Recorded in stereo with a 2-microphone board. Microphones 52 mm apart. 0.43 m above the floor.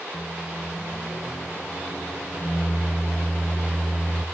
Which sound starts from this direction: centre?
A microwave, at 0.1 s.